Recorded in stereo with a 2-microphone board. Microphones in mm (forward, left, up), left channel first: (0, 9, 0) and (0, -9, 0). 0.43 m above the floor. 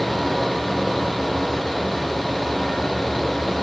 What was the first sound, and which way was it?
Only background noise.